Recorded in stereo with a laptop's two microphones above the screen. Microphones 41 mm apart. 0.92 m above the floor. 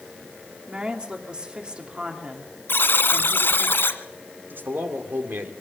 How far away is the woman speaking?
About 2.5 m.